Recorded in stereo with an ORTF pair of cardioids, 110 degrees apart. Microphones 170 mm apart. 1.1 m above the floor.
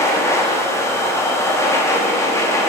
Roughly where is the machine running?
Ahead.